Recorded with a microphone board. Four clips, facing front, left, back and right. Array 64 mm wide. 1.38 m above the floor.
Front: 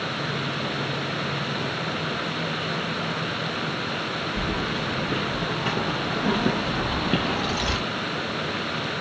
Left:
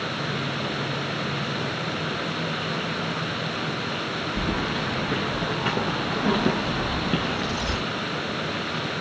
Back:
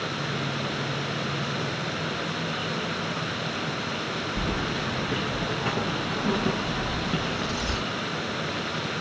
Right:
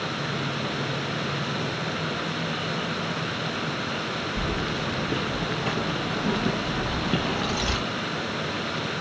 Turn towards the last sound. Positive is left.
turn(degrees=-35)